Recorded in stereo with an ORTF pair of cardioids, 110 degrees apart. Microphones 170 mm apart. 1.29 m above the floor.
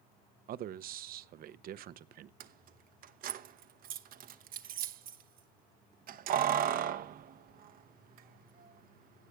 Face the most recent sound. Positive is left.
turn(degrees=-60)